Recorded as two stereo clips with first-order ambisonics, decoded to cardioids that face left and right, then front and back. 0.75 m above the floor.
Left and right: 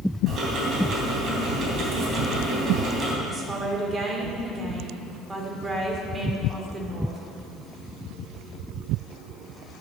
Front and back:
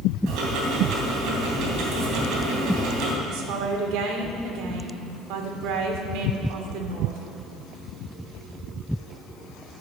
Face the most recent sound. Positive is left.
turn(degrees=-160)